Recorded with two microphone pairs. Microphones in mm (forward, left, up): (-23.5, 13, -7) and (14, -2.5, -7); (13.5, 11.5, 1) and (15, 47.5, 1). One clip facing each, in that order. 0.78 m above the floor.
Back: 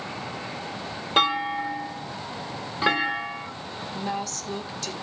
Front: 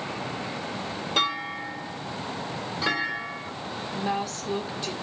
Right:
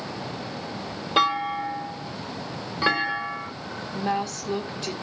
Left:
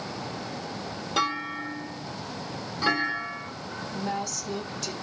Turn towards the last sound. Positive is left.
turn(degrees=-70)